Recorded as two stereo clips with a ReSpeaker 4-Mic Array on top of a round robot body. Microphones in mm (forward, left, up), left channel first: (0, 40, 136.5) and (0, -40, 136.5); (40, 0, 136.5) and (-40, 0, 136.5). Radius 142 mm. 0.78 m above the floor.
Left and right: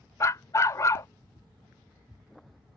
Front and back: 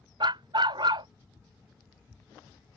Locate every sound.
0.2 s a dog barking: 145° left